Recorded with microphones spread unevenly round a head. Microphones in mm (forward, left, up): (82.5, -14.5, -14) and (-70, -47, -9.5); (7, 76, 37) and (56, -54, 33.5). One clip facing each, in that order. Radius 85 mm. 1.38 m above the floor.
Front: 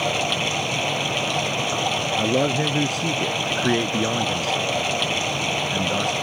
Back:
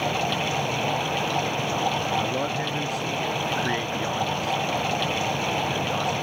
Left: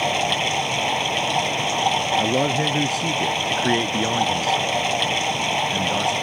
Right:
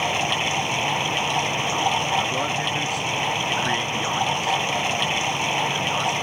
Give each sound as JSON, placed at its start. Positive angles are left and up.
{"t": 0.0, "sound": "running water", "azimuth_deg": 55}
{"t": 2.2, "sound": "a man speaking", "azimuth_deg": 65}